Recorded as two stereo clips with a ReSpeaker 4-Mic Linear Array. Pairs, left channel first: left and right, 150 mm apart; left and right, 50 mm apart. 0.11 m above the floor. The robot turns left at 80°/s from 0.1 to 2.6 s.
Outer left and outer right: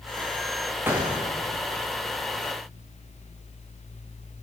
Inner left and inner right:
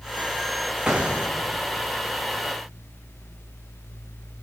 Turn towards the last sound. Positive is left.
turn(degrees=-150)